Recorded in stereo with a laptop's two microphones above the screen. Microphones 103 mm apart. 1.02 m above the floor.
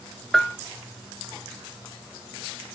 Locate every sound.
0.3 s a bell: 5° left (ahead or behind)